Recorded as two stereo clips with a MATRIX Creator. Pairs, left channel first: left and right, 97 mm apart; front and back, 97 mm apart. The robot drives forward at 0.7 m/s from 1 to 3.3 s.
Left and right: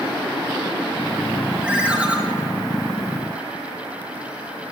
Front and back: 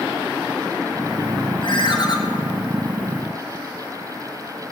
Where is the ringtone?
10° right, 1.7 m; by 2.2 s 15° right, 1.4 m.